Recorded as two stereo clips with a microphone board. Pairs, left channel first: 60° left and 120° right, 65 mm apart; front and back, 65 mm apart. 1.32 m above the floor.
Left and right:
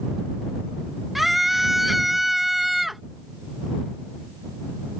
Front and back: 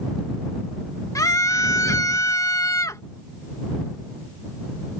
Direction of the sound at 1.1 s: 30° right.